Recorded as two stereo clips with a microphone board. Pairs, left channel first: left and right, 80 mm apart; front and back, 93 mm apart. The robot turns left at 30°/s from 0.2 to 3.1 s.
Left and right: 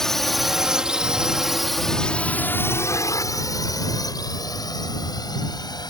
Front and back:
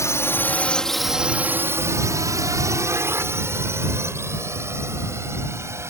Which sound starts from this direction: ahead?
A drone, at 0.0 s.